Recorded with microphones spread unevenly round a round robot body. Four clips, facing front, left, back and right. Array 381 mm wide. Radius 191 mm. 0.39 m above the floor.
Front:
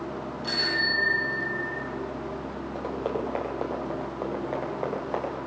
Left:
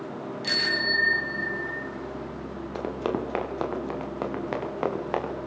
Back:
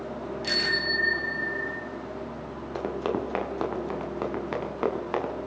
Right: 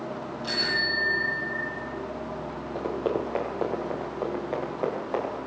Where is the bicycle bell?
155° left, 7 m; by 1.8 s 160° left, 7.5 m.